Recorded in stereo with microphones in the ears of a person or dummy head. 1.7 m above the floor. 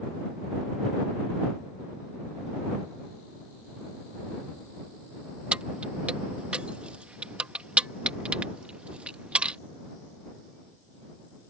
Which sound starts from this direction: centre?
Keys jangling, at 5.5 s.